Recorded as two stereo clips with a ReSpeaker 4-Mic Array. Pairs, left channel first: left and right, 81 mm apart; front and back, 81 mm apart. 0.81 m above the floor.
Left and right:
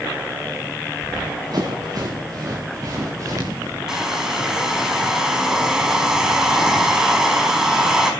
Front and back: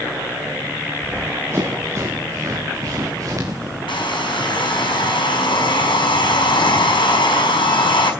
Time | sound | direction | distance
1.0 | running footsteps | 120° right | 5 m
3.9 | a hair dryer | 10° right | 4.5 m